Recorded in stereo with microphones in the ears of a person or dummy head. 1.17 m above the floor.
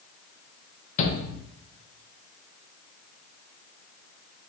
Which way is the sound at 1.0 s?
40° left (ahead or behind).